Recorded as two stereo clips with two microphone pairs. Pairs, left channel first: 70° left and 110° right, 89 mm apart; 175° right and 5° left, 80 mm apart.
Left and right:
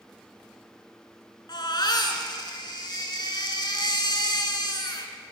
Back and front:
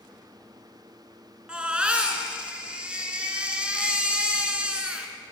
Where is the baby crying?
80° left, 1.3 m.